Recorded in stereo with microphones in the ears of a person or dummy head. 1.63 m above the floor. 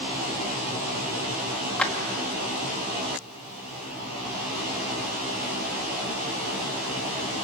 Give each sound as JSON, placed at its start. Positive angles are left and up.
{"t": 1.8, "sound": "a clap", "side_deg": 5, "distance_m": 1.9}